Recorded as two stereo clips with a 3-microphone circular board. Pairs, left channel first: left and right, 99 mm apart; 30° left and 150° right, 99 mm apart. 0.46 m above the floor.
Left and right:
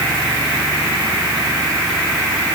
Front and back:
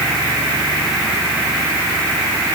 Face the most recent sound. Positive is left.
No sound to turn to.